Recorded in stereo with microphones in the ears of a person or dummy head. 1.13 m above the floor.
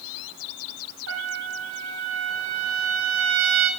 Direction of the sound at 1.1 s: 75° right (ahead or behind).